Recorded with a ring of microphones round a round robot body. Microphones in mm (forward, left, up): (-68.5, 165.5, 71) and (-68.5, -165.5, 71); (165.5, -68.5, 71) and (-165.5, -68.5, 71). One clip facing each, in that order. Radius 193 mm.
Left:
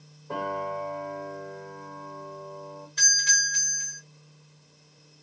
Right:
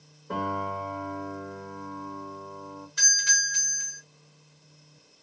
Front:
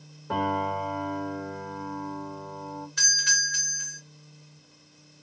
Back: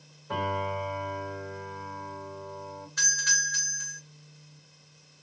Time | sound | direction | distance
0.3 | a piano | 20° right | 1.2 m
3.0 | a doorbell | 20° right | 1.2 m